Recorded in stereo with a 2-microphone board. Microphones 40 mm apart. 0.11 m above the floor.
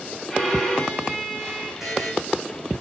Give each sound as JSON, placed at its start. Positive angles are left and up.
{"t": 0.3, "sound": "a violin", "side_deg": 5, "distance_m": 7.0}
{"t": 1.8, "sound": "a buzzer", "side_deg": -10, "distance_m": 3.5}